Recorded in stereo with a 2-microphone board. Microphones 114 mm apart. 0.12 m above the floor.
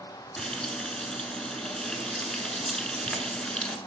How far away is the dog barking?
No dog barking in this recording.